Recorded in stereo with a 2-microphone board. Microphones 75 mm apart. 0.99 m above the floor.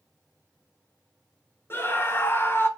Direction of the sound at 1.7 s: 30° left (ahead or behind).